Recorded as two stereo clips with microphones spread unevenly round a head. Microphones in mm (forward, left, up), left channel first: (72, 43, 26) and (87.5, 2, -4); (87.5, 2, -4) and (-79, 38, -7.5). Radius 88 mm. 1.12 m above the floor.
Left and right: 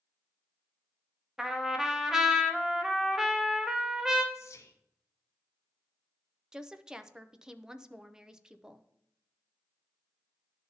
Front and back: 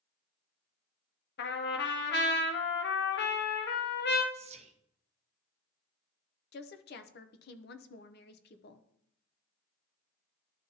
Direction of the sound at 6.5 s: 30° right.